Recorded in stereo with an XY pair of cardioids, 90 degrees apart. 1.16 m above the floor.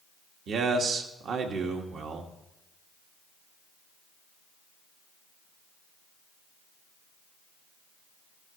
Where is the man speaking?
70° right, 1.8 m.